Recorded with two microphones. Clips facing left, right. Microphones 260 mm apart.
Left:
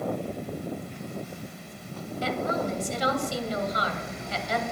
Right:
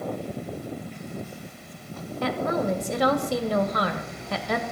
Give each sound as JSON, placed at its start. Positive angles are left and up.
{"t": 2.2, "sound": "a woman speaking", "side_deg": -60, "distance_m": 2.0}